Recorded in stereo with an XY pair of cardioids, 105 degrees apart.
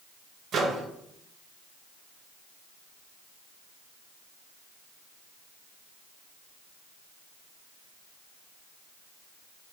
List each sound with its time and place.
0.5 s a microwave: 60° right, 0.8 m